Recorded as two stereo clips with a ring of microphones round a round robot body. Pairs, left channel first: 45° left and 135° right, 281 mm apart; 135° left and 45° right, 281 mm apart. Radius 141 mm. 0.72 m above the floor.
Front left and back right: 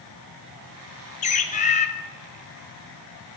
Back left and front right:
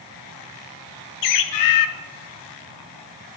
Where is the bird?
110° left, 0.6 m.